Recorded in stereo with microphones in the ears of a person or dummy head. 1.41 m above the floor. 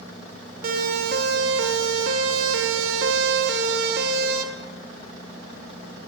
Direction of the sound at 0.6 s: 50° right (ahead or behind).